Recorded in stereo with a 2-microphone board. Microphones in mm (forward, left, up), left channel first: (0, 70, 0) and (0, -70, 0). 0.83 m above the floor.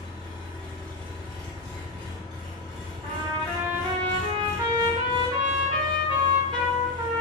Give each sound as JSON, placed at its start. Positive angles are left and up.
{"t": 0.0, "sound": "an engine running", "side_deg": -35, "distance_m": 1.9}
{"t": 3.0, "sound": "a trumpet", "side_deg": -35, "distance_m": 1.2}